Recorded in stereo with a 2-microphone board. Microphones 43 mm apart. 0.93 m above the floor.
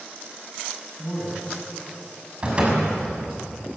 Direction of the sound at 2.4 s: 25° right (ahead or behind).